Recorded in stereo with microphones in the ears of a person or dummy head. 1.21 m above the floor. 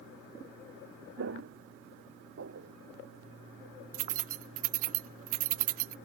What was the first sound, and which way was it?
Footsteps, 70° right (ahead or behind).